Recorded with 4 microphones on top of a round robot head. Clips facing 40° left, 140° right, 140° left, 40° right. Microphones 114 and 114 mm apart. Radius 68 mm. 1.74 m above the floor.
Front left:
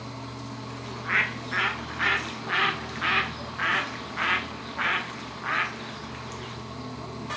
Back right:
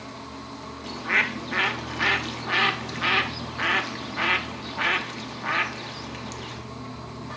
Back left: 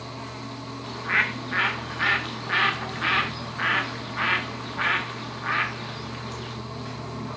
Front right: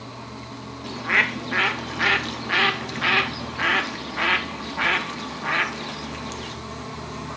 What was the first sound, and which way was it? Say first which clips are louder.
A bird: back right 3 dB, front right 3 dB; 85° right.